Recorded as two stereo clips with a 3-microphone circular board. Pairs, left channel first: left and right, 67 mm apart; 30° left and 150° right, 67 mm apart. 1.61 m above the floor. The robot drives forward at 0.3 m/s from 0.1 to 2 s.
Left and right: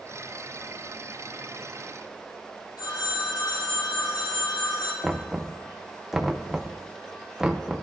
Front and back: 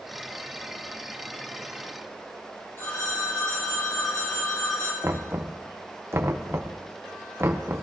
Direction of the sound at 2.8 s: 85° left.